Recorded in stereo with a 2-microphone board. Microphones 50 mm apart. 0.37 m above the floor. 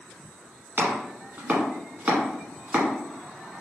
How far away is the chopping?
About 1.3 m.